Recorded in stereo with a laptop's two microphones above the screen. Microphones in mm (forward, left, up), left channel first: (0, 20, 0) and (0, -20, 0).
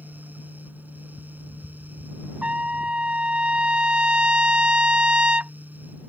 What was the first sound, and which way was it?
A fan, 45° right (ahead or behind).